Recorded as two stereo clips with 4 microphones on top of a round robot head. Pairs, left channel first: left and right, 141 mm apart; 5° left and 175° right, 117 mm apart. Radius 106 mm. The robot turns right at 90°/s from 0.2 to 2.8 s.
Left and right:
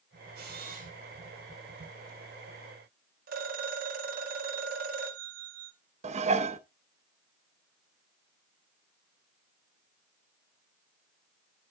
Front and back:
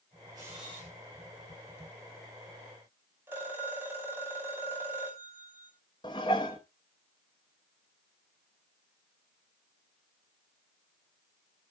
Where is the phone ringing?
100° right, 2.5 m.